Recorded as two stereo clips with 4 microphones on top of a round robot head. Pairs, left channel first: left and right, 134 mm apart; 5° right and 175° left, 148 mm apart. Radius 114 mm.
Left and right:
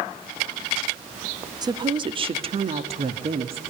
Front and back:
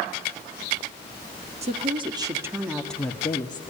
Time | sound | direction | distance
1.6 | a woman speaking | 145° right | 1.8 m